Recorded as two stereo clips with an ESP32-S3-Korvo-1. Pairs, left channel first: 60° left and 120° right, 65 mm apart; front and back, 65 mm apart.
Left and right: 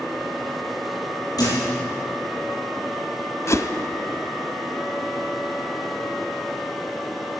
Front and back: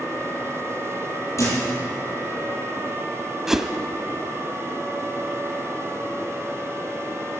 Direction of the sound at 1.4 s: 40° left.